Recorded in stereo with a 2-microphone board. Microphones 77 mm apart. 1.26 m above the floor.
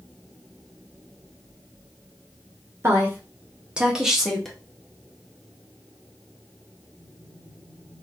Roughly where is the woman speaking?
Right.